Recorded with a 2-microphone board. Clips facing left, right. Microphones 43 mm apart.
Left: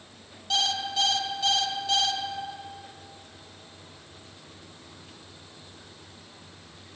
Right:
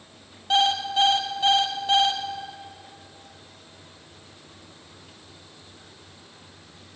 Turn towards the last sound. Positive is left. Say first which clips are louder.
# right 6 dB
turn(degrees=-30)  # may be behind; listen again after turning